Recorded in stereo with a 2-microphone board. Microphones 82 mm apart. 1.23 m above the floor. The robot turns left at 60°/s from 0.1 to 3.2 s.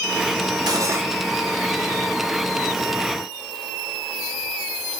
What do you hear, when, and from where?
0.7 s cutlery clinking: 55° right (ahead or behind), 1.3 m; by 1.1 s 30° right (ahead or behind), 1.3 m